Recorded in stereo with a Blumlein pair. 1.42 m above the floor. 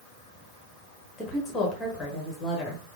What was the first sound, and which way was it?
A woman speaking, 10° left.